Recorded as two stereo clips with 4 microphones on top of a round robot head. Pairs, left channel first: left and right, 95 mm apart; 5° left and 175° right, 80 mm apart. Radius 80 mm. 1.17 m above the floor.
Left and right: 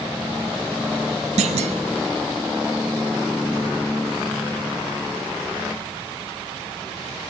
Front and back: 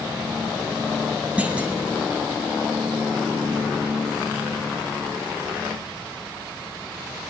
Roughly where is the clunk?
Right.